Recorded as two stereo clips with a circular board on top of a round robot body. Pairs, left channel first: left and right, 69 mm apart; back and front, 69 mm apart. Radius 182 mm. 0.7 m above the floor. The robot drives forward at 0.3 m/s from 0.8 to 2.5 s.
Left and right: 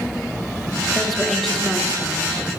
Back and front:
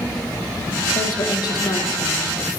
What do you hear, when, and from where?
0.9 s a woman speaking: 175° left, 2.5 m